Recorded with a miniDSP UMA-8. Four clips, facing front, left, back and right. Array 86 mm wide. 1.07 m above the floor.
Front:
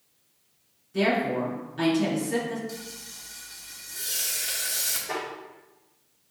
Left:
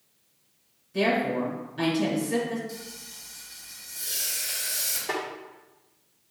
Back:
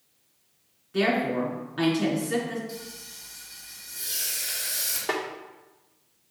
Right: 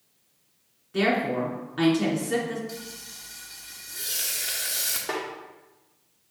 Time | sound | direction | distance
0.9 | a woman speaking | 130° right | 3 m
2.7 | frying | 70° right | 1.3 m
5.1 | a snare drum | 165° right | 1.3 m